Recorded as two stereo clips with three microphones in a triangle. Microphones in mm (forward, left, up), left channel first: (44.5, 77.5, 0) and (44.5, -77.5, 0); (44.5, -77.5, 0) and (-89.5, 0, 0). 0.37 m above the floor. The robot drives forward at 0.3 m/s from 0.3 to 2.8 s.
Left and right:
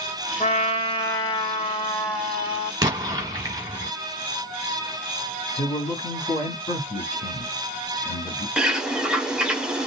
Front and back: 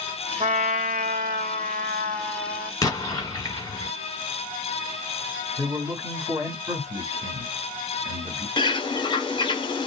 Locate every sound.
0.4 s a trumpet: 125° left, 0.7 m; by 2.7 s 155° left, 1.2 m
2.8 s an explosion: 65° right, 1.2 m
5.6 s a man speaking: 95° left, 1.8 m
8.6 s a bird: 10° right, 0.7 m